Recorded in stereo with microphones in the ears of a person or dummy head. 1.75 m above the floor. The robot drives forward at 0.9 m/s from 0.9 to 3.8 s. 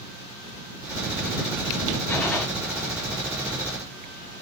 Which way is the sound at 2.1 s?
5° left (ahead or behind).